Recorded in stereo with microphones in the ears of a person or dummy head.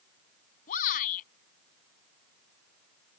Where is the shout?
50° left (ahead or behind).